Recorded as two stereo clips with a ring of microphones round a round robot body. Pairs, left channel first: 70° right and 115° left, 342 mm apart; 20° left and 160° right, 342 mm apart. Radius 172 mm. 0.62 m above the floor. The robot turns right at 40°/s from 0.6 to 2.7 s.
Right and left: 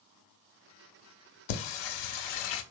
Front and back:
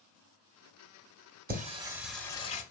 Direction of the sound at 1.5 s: 90° right.